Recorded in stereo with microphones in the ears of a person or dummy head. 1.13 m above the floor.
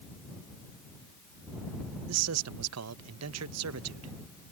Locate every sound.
2.1 s a man speaking: 80° right